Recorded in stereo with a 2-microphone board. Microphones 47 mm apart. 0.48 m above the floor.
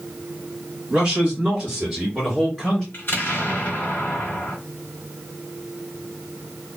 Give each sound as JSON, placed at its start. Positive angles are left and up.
{"t": 0.9, "sound": "a man speaking", "side_deg": -30, "distance_m": 1.8}
{"t": 2.9, "sound": "an explosion", "side_deg": 40, "distance_m": 1.6}